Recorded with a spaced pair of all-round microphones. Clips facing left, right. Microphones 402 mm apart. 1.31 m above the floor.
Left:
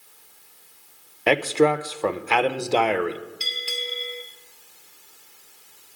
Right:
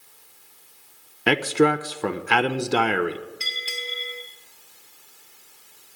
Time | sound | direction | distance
1.3 | a man speaking | 25° right (ahead or behind) | 0.6 m
3.4 | a bell | 35° right (ahead or behind) | 2 m